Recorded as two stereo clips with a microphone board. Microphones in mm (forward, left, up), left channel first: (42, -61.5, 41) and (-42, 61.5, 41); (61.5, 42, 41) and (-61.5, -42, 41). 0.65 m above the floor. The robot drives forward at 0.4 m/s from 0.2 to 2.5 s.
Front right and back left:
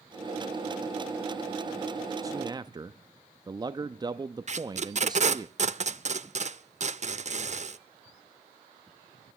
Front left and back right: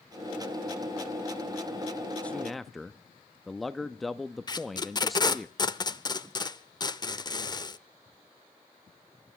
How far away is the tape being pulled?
About 0.5 m.